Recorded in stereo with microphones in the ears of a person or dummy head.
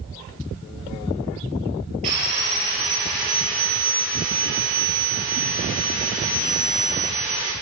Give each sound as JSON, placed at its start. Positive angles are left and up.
{"t": 2.0, "sound": "sawing", "side_deg": -40, "distance_m": 4.0}